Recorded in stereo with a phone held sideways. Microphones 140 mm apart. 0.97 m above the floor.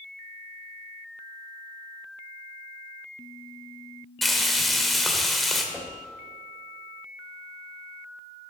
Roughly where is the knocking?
Centre.